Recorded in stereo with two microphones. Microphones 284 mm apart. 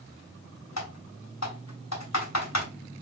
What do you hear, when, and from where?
0.8 s typing on a keyboard: 65° left (ahead or behind), 2.5 m